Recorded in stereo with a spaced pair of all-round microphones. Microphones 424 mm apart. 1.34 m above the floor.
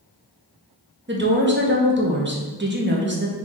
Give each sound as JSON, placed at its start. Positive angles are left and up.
{"t": 1.1, "sound": "a woman speaking", "side_deg": -25, "distance_m": 0.8}